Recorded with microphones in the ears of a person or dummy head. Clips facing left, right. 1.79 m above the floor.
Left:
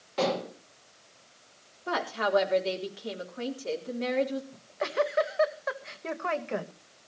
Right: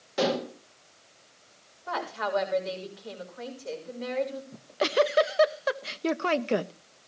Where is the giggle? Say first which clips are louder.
Right 7 dB; 45° right (ahead or behind), 0.6 m.